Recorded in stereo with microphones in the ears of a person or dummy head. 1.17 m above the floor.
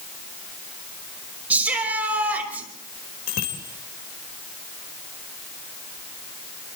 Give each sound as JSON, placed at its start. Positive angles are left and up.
{"t": 1.5, "sound": "a shout", "side_deg": -5, "distance_m": 6.0}
{"t": 3.3, "sound": "a bicycle bell", "side_deg": 70, "distance_m": 3.5}